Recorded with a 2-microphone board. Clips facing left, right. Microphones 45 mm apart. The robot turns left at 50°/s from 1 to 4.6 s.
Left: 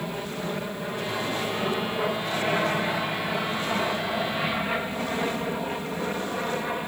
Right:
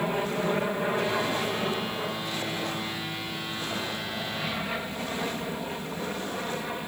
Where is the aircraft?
20° right (ahead or behind); by 6.9 s 15° left (ahead or behind).